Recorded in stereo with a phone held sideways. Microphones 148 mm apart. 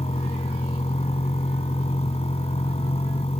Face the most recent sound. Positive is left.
turn(degrees=45)  # may be behind; listen again after turning